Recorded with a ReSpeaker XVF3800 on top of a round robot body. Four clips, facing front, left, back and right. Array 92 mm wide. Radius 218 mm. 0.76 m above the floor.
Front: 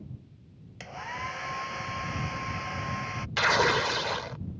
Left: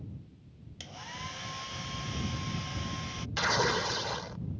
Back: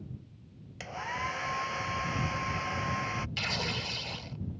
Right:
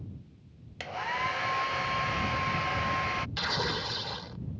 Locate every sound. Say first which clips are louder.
0.8 s a hair dryer: right 12 dB, back 1 dB; 90° right
3.4 s tearing paper: left 4 dB, front 12 dB; 10° left